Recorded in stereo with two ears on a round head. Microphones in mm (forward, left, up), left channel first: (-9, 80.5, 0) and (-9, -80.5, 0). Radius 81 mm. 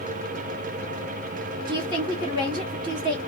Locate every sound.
1.7 s a woman speaking: 25° right (ahead or behind), 1.3 m